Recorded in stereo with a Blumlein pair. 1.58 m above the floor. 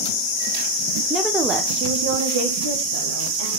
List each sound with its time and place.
1.1 s a woman speaking: 5° left, 1.0 m; by 3.5 s 75° right, 3 m